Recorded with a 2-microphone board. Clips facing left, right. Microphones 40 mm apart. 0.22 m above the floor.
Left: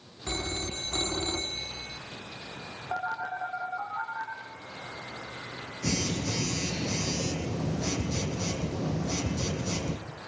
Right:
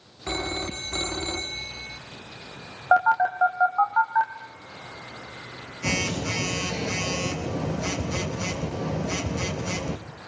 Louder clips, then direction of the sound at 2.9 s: Right 13 dB; 65° right (ahead or behind).